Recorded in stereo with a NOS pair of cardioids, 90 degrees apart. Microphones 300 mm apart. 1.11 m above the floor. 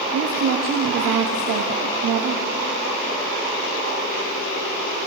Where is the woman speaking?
70° right, 1.9 m.